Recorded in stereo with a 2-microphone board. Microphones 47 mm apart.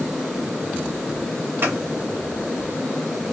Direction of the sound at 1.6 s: 60° right (ahead or behind).